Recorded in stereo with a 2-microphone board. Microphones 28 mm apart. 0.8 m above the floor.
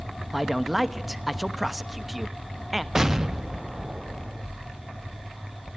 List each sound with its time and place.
0.3 s a man speaking: 5° right (ahead or behind), 1.1 m
3.0 s an explosion: 20° right (ahead or behind), 0.7 m